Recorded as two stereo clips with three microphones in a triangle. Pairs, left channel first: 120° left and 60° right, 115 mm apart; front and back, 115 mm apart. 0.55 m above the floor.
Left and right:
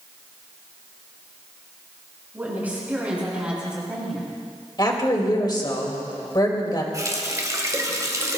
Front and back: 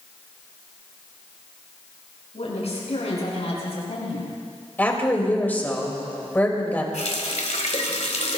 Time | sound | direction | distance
2.3 | a woman speaking | 15° left | 6 m
4.8 | a woman speaking | 75° left | 2.5 m
6.9 | a running tap | straight ahead | 1.6 m